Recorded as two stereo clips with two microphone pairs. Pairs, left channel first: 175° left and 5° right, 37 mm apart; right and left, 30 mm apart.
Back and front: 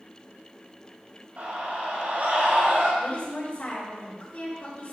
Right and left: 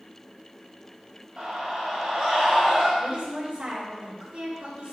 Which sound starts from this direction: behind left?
A woman speaking, at 3.0 s.